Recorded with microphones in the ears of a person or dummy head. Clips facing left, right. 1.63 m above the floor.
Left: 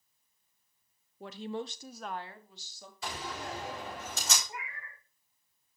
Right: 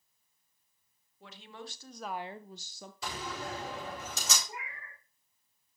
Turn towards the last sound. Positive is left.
turn(degrees=-25)  # may be behind; listen again after turning